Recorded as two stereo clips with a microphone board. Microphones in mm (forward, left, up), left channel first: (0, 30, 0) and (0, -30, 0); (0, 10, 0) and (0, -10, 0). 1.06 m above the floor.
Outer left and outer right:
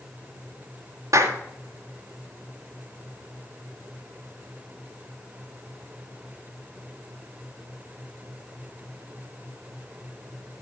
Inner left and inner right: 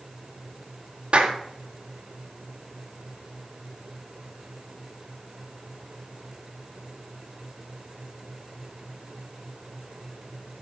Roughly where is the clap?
Right.